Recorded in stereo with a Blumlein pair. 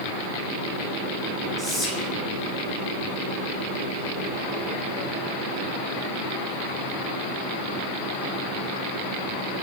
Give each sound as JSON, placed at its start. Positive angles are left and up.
{"t": 1.6, "sound": "whispering", "azimuth_deg": -5, "distance_m": 1.6}